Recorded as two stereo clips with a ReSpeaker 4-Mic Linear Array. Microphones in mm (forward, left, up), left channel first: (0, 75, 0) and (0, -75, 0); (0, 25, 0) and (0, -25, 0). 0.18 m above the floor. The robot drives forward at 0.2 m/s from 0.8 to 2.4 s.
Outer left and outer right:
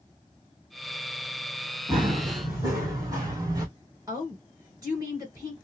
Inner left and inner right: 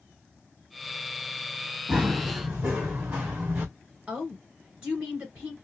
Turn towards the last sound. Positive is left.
turn(degrees=-25)  # may be behind; listen again after turning